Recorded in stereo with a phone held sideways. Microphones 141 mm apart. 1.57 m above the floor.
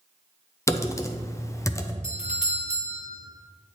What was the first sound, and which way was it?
Typing on a keyboard, 20° left (ahead or behind).